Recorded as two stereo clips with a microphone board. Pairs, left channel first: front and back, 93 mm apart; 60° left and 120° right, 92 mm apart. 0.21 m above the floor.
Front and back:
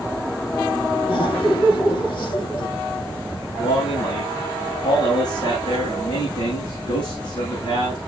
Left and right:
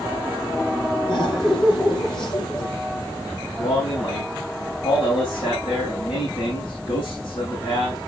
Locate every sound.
1.1 s laughter: 25° left, 7 m
3.6 s a man speaking: 25° left, 7.5 m